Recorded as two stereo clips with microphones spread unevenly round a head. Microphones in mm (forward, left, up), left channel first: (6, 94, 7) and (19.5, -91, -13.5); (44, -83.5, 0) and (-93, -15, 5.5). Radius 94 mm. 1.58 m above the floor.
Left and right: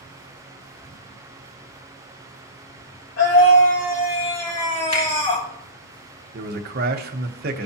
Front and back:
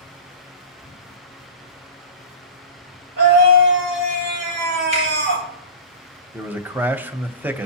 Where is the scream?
135° left, 4 m; by 5.5 s 160° left, 1.9 m.